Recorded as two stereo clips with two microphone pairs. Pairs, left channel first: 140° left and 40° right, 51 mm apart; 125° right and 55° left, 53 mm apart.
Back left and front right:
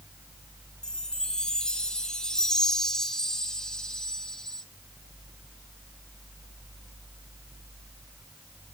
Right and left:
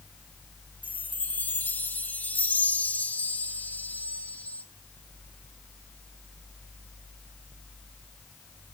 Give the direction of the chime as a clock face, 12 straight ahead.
5 o'clock.